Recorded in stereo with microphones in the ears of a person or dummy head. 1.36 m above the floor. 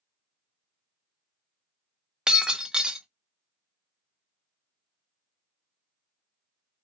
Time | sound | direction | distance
2.3 | breaking glass | 5° right (ahead or behind) | 0.8 m